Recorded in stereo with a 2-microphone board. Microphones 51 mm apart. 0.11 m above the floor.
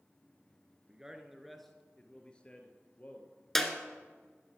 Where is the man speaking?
15° right (ahead or behind), 1.3 m; by 3.5 s 40° left (ahead or behind), 1.9 m.